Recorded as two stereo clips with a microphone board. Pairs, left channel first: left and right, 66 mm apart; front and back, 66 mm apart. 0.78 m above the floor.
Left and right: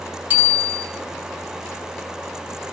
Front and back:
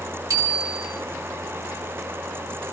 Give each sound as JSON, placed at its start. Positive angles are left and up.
{"t": 0.3, "sound": "a bicycle bell", "azimuth_deg": -150, "distance_m": 5.0}